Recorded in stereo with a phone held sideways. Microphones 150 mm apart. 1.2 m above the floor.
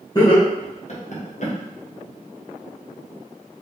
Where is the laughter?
25° left (ahead or behind), 1.1 m; by 1.5 s 50° left (ahead or behind), 1.0 m.